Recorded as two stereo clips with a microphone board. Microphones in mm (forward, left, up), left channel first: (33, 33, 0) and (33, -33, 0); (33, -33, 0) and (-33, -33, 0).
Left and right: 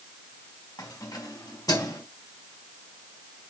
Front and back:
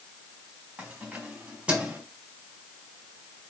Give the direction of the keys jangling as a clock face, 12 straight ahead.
9 o'clock.